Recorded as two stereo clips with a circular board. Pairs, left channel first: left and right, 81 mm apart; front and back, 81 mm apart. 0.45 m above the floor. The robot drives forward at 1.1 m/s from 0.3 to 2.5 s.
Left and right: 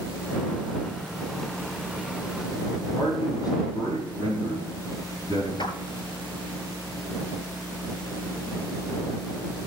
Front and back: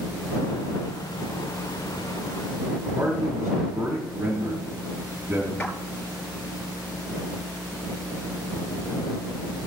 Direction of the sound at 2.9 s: 135° left.